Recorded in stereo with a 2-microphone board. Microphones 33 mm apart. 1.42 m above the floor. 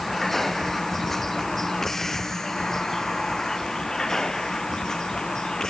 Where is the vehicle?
5° left (ahead or behind); by 5.7 s 15° left (ahead or behind).